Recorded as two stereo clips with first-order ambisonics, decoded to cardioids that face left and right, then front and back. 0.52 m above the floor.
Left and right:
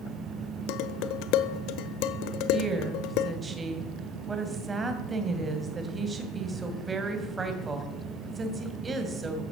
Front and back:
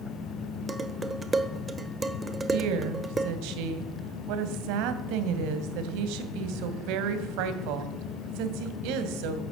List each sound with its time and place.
0.7 s dishes clattering: 105° left, 1.1 m
2.5 s a woman speaking: 165° right, 2.5 m